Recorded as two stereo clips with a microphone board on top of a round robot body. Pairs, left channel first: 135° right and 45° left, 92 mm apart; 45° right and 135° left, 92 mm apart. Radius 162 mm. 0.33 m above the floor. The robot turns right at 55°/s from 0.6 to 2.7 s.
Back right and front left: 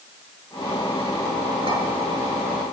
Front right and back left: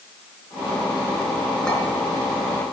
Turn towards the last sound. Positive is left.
turn(degrees=95)